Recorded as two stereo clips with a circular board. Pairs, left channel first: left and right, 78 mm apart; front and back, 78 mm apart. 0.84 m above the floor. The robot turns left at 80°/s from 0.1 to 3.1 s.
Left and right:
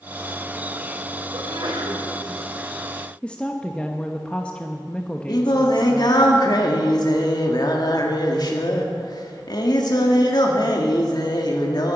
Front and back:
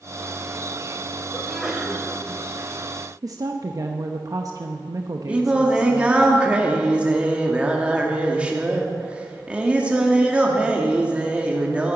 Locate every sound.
1.3 s a sneeze: 70° right, 3.5 m; by 2.0 s 125° right, 3.5 m
3.2 s a woman speaking: 160° left, 0.9 m
5.3 s singing: 105° left, 2.0 m